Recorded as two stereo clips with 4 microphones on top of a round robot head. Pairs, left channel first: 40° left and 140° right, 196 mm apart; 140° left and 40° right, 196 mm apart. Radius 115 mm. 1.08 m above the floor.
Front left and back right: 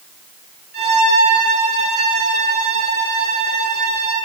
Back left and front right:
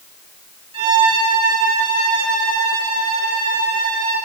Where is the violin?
105° right, 8.5 m.